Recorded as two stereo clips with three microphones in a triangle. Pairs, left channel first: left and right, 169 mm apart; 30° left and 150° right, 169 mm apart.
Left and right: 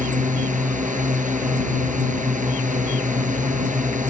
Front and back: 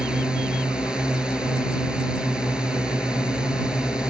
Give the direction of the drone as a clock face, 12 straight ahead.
2 o'clock.